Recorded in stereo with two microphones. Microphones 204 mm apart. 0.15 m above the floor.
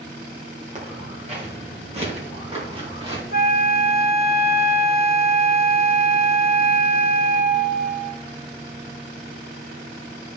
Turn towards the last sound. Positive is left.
turn(degrees=50)  # may be behind; listen again after turning